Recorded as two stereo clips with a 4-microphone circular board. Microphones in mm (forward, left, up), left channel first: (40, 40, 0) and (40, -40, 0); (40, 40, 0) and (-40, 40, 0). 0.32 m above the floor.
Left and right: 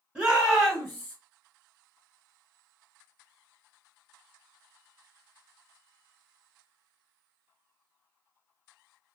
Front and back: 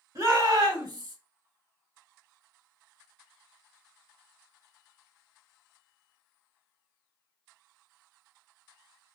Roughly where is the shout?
Behind.